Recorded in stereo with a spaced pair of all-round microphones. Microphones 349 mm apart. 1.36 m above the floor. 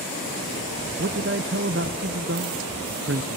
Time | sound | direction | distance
1.0 | a man speaking | 35° right (ahead or behind) | 0.9 m